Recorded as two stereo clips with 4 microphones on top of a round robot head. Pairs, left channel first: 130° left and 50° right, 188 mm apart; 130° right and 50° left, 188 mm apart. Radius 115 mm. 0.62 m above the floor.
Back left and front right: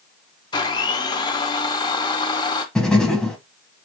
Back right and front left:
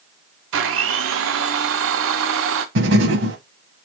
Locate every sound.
0.5 s a blender: 60° left, 0.7 m
2.8 s writing: 45° left, 0.6 m